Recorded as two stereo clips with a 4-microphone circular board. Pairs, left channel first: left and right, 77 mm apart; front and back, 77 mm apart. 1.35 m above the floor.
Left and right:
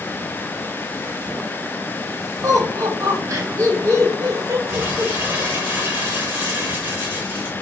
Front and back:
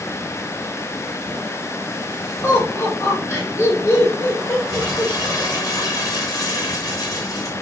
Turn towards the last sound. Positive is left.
turn(degrees=-25)